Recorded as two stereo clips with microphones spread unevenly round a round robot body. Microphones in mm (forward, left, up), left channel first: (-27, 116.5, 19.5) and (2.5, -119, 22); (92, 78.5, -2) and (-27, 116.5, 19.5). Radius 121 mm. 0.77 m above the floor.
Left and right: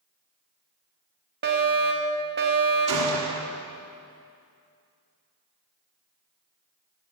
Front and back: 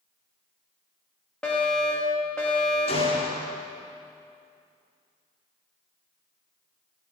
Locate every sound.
1.4 s a fire alarm: 90° right, 1.8 m
2.9 s a gunshot: 65° right, 2.0 m